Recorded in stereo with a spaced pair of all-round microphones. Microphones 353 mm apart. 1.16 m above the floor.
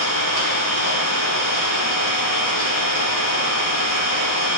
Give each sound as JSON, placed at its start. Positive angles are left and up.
{"t": 0.0, "sound": "an engine running", "side_deg": 80, "distance_m": 5.5}